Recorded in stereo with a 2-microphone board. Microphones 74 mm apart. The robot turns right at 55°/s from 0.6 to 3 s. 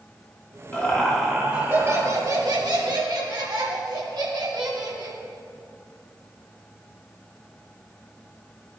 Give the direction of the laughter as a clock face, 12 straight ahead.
7 o'clock.